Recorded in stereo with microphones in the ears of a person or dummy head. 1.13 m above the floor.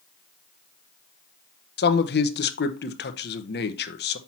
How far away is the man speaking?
About 0.8 m.